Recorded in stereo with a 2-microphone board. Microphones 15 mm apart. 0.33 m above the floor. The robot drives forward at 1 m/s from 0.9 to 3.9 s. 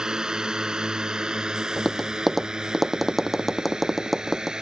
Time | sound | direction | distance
0.0 | a drone | 50° right (ahead or behind) | ?
1.8 | tapping | centre (ahead or behind) | ?